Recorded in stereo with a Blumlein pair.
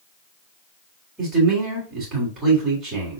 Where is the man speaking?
15° right, 3.5 m.